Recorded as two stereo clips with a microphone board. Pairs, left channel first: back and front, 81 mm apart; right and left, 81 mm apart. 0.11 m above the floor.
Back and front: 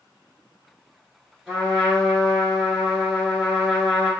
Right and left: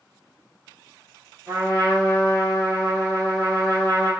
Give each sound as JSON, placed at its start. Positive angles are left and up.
{"t": 1.5, "sound": "a trumpet", "azimuth_deg": 85, "distance_m": 1.7}